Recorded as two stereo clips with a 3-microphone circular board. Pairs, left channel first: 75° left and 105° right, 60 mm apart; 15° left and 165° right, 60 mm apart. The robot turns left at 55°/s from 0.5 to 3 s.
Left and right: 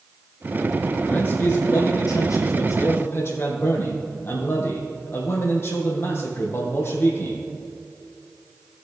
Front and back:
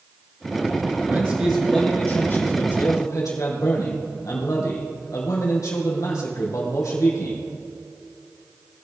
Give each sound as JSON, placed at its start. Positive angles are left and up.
{"t": 1.1, "sound": "a man speaking", "azimuth_deg": 135, "distance_m": 3.5}